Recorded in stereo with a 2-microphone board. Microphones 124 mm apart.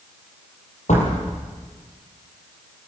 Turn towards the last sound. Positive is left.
turn(degrees=75)  # may be behind; listen again after turning